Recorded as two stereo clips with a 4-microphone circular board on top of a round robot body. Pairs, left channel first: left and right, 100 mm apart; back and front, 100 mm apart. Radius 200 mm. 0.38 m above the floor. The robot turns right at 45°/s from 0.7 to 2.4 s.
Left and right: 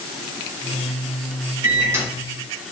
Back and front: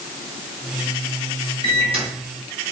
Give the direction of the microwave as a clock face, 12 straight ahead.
1 o'clock.